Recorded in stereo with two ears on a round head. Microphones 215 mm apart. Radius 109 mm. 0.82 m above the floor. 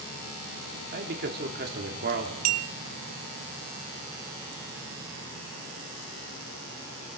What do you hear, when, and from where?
0.9 s a man speaking: 40° right (ahead or behind), 2.5 m
2.5 s a clink: 75° right (ahead or behind), 1.3 m